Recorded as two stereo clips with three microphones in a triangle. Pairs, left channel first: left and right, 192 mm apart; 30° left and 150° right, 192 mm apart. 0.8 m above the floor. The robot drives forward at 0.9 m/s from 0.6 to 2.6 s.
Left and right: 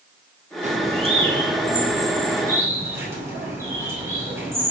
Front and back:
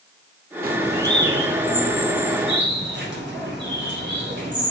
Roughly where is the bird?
Behind right.